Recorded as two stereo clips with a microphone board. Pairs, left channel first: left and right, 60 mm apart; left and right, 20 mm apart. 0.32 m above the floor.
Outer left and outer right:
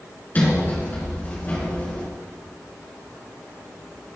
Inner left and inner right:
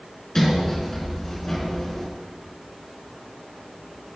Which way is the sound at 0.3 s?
30° left (ahead or behind).